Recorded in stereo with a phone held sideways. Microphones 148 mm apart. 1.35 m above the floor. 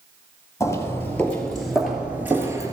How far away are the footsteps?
About 1.6 m.